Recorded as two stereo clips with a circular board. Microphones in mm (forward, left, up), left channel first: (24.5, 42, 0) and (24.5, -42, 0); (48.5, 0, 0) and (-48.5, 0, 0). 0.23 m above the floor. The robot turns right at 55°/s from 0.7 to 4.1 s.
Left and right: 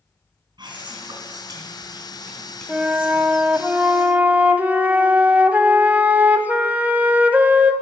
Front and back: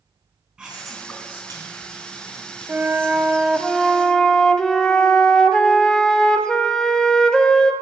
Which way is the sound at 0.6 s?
95° right.